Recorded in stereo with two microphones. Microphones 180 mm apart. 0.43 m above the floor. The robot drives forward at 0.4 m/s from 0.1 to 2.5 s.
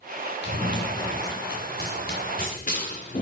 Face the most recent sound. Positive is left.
turn(degrees=45)  # may be behind; listen again after turning